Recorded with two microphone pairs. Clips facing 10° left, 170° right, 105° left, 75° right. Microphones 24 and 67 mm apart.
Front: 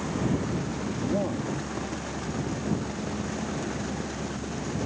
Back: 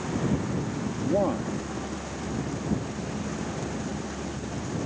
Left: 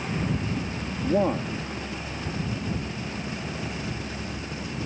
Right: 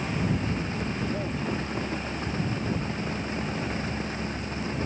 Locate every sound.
1.0 s a man speaking: 130° left